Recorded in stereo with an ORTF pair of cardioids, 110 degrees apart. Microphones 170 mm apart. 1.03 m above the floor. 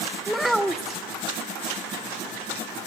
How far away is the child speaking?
About 1.6 m.